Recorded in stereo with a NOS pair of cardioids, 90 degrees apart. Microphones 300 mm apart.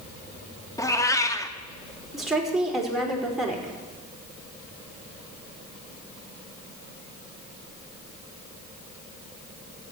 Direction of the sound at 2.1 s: Straight ahead.